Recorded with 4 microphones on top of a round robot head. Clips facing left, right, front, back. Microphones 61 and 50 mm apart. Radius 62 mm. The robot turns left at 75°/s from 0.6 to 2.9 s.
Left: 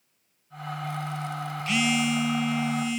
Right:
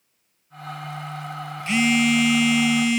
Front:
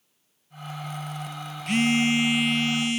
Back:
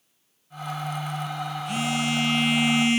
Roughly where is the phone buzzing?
Ahead right.